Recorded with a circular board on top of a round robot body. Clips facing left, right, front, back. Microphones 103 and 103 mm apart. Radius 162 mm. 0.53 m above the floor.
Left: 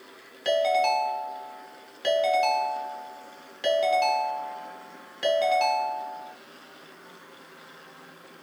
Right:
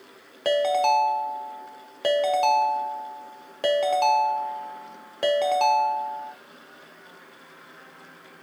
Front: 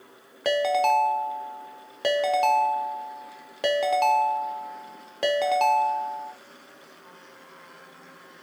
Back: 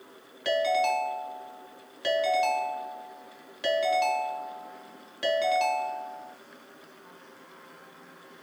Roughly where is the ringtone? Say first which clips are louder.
Right 2 dB, front 3 dB; ahead right.